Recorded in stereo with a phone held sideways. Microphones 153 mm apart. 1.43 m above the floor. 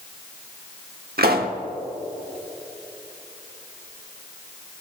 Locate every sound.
1.2 s a pop: 85° right, 1.1 m